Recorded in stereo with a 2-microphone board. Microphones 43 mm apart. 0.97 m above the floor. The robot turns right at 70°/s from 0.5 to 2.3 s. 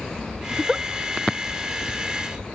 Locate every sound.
0.5 s a giggle: 5° right (ahead or behind); by 0.8 s 15° right (ahead or behind)